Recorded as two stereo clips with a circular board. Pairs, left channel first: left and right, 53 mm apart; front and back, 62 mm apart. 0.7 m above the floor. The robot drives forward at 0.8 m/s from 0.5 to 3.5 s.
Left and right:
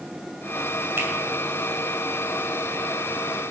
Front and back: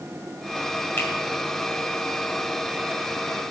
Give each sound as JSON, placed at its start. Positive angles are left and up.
{"t": 1.0, "sound": "a finger snap", "azimuth_deg": -45, "distance_m": 2.5}